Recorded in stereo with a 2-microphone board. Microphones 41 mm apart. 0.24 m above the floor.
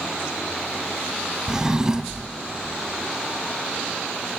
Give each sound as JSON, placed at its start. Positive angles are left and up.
{"t": 1.5, "sound": "a drawer", "side_deg": -15, "distance_m": 0.5}